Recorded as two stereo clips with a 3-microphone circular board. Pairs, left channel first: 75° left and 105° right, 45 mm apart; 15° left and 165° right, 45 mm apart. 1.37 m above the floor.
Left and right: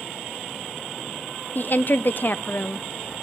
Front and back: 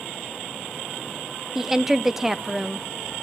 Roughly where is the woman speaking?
Left.